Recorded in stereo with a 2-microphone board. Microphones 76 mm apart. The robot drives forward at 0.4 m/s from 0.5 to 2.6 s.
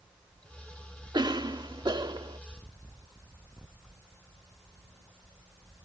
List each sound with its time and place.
1.1 s a cough: 75° right (ahead or behind)